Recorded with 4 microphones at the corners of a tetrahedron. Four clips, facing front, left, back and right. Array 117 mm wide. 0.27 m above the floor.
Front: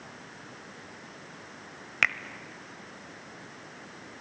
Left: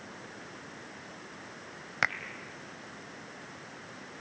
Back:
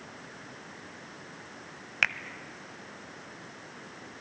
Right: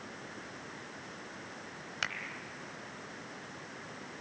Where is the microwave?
No microwave in this recording.